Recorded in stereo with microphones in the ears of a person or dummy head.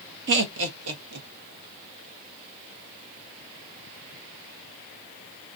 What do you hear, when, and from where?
0.3 s laughter: 55° right (ahead or behind), 0.9 m; by 1.3 s 80° right, 1.2 m